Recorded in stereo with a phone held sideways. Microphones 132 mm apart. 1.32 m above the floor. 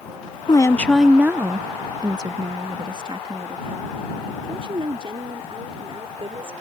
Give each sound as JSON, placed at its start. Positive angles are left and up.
{"t": 0.5, "sound": "a woman speaking", "side_deg": 35}